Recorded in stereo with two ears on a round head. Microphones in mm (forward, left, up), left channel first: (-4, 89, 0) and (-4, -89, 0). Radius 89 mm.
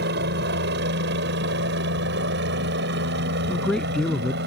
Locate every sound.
0.0 s a helicopter: 60° right (ahead or behind)
3.5 s a man speaking: 5° left (ahead or behind)